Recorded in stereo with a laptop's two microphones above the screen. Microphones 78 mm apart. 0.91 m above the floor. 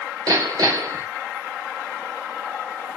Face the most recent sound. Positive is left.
turn(degrees=-55)  # may be behind; listen again after turning